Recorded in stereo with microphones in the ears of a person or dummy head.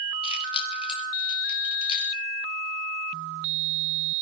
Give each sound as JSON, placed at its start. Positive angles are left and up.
{"t": 0.2, "sound": "keys jangling", "side_deg": 30, "distance_m": 4.5}